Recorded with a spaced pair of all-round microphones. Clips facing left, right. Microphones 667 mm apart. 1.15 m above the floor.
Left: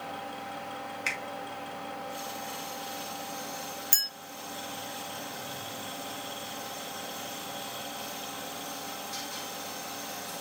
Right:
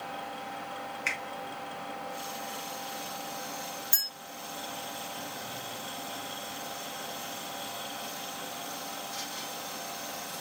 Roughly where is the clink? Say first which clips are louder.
Left 1 dB; left.